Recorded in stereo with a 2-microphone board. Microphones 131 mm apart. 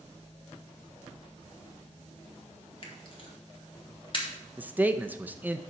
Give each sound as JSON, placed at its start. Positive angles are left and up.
{"t": 2.8, "sound": "a camera shutter", "side_deg": 40, "distance_m": 1.5}
{"t": 4.6, "sound": "a man speaking", "side_deg": -10, "distance_m": 0.5}